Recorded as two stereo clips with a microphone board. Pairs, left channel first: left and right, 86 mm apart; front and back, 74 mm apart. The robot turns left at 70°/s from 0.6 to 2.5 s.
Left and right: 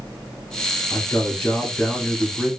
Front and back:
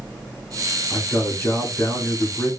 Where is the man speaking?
85° left, 1.3 m; by 2.5 s 25° right, 1.3 m.